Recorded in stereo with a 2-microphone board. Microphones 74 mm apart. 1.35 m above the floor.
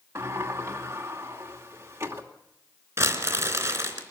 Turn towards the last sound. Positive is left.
turn(degrees=-35)  # may be behind; listen again after turning